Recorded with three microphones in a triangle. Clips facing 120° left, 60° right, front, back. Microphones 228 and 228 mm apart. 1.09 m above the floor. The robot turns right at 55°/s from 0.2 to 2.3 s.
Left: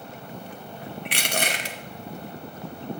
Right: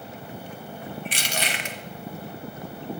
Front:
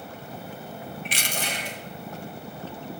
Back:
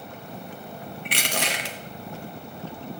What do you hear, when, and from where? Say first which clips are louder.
1.1 s crushing: left 6 dB, back 6 dB; 145° left, 1.0 m; by 1.8 s straight behind, 1.0 m